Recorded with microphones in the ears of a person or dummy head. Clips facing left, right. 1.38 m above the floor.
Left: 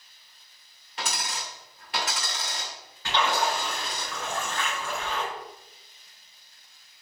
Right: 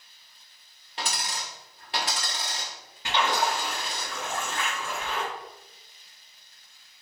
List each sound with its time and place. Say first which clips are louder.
1.0 s a dropped coin: even; 25° right (ahead or behind), 1.1 m
3.0 s a splash: even; 20° right (ahead or behind), 1.6 m